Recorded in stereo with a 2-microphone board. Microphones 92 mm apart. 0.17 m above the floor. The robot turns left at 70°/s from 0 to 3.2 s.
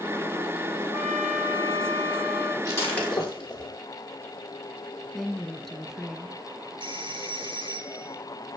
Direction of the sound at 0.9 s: 30° left.